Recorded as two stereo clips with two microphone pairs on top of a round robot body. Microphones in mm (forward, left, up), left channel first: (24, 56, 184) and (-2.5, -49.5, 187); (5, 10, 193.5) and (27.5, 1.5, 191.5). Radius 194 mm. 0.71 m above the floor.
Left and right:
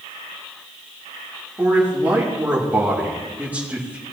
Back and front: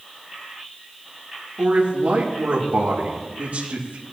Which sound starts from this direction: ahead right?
A man speaking, at 1.6 s.